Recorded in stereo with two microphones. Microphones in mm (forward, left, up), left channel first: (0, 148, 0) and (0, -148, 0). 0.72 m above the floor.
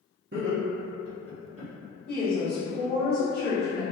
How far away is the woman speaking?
About 1.3 m.